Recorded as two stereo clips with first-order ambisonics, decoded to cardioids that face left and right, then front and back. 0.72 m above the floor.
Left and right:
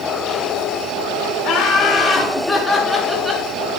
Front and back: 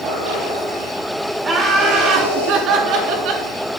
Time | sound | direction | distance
1.4 | laughter | 125° left | 1.6 m